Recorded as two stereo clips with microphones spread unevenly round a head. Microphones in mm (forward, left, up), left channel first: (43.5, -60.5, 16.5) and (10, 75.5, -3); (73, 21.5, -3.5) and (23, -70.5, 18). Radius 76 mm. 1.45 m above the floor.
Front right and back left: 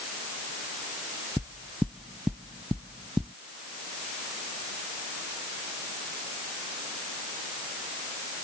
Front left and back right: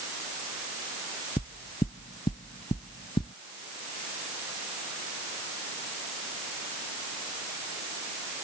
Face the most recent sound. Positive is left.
turn(degrees=20)